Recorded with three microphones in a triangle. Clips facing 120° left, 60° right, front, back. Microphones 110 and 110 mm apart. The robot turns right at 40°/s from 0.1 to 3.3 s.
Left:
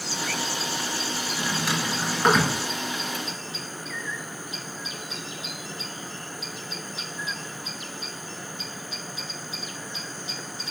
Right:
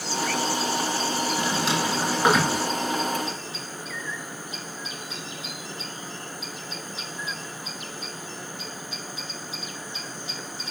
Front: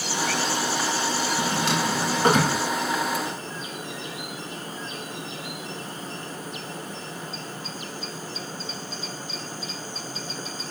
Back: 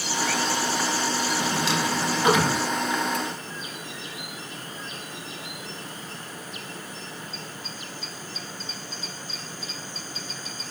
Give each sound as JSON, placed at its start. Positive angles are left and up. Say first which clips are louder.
{"t": 1.4, "sound": "a drawer", "louder": "even, front 2 dB", "azimuth_deg": -10, "distance_m": 0.8}